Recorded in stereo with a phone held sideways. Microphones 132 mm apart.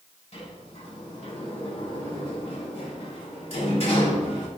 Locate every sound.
0.3 s a sliding door: 55° left (ahead or behind), 6.5 m